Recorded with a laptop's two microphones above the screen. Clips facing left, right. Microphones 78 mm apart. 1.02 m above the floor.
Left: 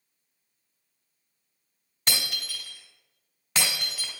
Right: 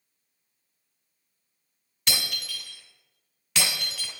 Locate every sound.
2.1 s breaking glass: 35° left (ahead or behind), 2.0 m